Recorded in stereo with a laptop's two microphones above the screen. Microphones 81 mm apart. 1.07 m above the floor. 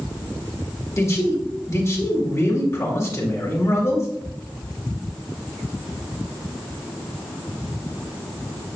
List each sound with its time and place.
1.0 s a man speaking: 35° left (ahead or behind), 2.5 m